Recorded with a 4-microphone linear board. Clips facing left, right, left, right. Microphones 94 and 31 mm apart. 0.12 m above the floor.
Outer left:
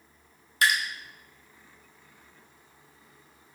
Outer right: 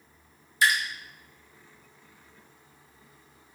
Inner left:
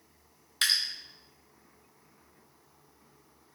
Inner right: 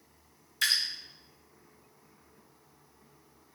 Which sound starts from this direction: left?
Dripping, at 0.6 s.